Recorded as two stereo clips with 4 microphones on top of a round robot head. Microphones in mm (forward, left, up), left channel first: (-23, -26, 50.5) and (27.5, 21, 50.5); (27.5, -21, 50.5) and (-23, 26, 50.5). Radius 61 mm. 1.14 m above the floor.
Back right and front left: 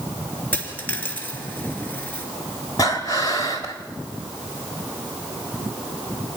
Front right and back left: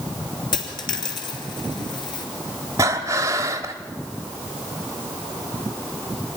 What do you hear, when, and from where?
0.5 s a dropped coin: 70° right, 3 m
2.8 s breathing: 175° right, 1.1 m